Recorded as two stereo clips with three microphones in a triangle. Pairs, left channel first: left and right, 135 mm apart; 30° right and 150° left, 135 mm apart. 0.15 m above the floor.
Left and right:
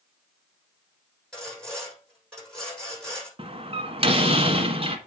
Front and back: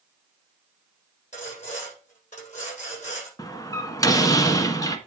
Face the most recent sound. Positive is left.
turn(degrees=-85)